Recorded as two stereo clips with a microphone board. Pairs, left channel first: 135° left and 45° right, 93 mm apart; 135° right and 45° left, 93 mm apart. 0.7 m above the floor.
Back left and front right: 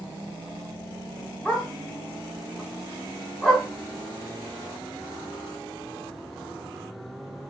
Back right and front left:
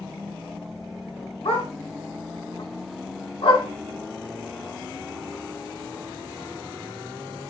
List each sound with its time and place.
1.4 s a dog barking: 135° right, 1.1 m